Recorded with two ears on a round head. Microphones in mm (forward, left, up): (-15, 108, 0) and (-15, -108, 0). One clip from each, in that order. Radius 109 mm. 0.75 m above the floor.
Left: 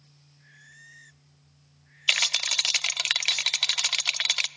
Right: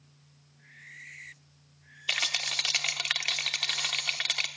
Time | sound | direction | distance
2.1 | a rattle | 50° left (ahead or behind) | 0.7 m